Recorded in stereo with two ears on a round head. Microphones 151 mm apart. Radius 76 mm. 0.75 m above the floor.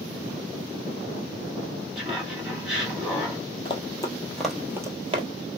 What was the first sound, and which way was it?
Laughter, centre (ahead or behind).